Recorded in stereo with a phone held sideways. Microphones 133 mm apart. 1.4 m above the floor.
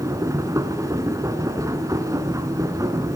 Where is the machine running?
25° right (ahead or behind), 2.5 m.